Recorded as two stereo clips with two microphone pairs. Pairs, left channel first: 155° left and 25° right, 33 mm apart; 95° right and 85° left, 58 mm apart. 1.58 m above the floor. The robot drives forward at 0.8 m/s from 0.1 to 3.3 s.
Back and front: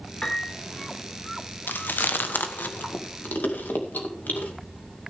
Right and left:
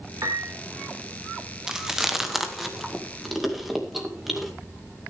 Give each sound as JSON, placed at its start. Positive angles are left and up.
{"t": 0.2, "sound": "a piano", "azimuth_deg": 95, "distance_m": 2.5}
{"t": 1.7, "sound": "chewing", "azimuth_deg": 170, "distance_m": 0.9}